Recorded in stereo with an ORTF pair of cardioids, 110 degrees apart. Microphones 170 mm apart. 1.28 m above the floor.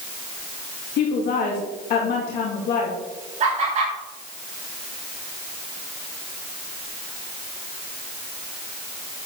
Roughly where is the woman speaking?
Left.